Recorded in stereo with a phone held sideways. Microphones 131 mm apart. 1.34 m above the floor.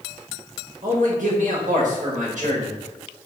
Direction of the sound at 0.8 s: 75° right (ahead or behind).